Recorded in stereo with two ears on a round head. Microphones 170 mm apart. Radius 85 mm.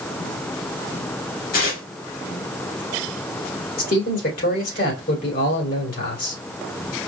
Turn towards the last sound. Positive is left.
turn(degrees=55)  # may be behind; listen again after turning